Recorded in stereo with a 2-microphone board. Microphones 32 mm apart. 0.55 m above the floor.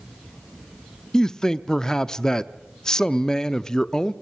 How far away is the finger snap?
No finger snap in this recording.